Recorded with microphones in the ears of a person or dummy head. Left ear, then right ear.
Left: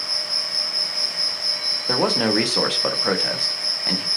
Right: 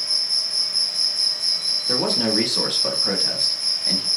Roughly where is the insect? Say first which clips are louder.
Right 2 dB; right.